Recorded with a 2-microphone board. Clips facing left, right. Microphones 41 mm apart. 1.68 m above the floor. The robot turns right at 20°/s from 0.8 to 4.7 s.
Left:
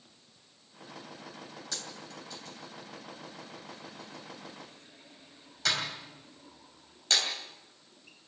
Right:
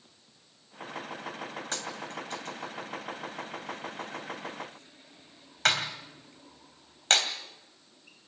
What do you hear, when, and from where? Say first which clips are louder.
1.7 s a dropped coin: right 7 dB; 45° right (ahead or behind), 3 m; by 7.3 s 55° right (ahead or behind), 3 m